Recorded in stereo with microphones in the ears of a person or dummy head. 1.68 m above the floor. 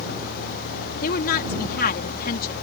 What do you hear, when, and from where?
1.0 s a woman speaking: 40° left (ahead or behind)